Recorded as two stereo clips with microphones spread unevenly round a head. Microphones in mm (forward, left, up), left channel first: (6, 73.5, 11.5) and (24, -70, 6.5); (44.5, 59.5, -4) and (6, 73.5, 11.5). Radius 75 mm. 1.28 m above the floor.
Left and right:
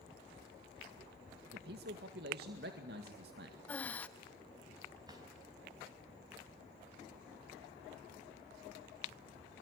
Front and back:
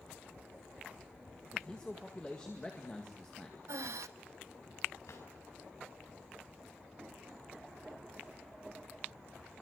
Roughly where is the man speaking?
Right.